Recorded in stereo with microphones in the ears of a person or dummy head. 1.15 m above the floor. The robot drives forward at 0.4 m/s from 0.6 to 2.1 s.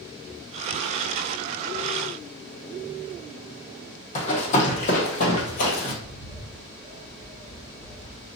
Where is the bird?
40° left (ahead or behind), 1.5 m.